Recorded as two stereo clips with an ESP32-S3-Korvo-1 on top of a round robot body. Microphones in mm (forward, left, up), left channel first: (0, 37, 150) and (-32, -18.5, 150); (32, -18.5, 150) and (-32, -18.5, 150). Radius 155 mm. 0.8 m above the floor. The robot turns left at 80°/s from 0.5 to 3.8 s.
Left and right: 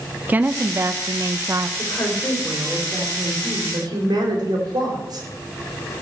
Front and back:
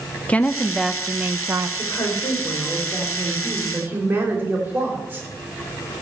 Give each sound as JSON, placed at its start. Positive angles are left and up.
{"t": 0.3, "sound": "a woman speaking", "azimuth_deg": -65, "distance_m": 0.8}
{"t": 1.8, "sound": "a woman speaking", "azimuth_deg": 35, "distance_m": 4.0}